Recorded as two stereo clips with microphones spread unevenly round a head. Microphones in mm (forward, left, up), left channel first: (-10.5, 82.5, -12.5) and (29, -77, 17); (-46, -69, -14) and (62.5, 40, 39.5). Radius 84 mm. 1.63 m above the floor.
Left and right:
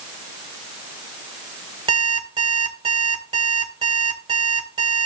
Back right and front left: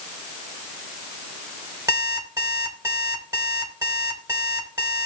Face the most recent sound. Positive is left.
turn(degrees=-20)